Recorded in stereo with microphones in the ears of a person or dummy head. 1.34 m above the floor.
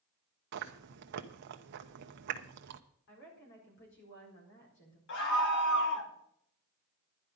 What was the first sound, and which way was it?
Chewing, 55° right (ahead or behind).